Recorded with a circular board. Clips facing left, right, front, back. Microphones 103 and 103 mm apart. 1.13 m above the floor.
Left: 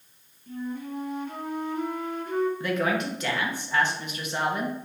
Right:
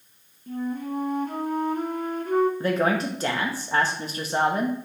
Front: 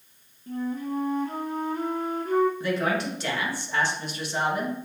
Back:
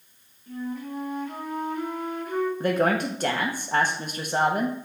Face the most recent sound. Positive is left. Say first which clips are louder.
# right 3 dB, back 3 dB
turn(degrees=-145)